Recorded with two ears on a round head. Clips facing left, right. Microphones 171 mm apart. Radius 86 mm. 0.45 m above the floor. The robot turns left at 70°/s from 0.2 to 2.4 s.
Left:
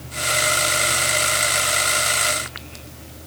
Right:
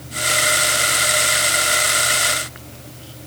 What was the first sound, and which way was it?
Only background noise.